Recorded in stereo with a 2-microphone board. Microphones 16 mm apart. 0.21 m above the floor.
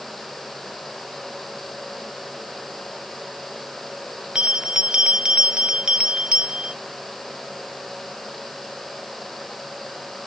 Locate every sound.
4.3 s a bell: 65° right (ahead or behind)